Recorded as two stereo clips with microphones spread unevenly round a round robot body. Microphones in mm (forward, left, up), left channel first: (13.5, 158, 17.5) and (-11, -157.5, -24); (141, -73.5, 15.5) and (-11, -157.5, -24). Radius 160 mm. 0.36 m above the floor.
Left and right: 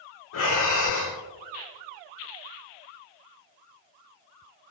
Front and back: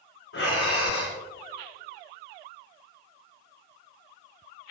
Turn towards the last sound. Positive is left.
turn(degrees=40)